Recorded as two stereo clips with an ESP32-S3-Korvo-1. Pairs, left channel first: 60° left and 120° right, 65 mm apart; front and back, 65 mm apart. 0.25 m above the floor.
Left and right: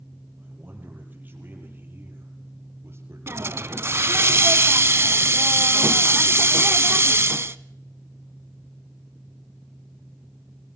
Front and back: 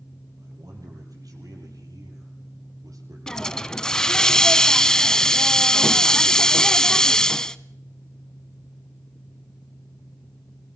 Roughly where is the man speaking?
Behind.